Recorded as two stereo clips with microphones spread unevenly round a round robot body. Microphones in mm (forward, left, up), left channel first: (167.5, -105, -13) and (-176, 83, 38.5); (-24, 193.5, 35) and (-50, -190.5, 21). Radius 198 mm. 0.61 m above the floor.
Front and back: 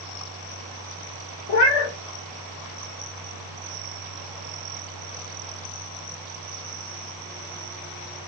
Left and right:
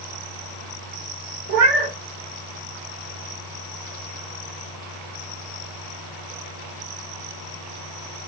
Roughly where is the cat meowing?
Ahead right.